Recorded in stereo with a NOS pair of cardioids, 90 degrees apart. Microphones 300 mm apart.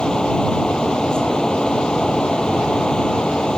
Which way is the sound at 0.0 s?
5° left.